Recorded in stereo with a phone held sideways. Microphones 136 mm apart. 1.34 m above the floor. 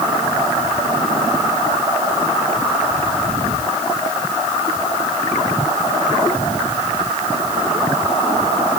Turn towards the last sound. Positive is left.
No sound to turn to.